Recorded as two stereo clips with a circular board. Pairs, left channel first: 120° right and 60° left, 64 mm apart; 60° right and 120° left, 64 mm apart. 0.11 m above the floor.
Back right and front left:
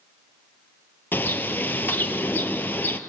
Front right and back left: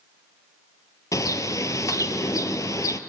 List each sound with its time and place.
1.1 s a bird: 65° right, 0.6 m